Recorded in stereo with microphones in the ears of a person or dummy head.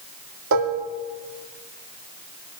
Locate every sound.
0.5 s dishes clattering: 70° right (ahead or behind), 2.5 m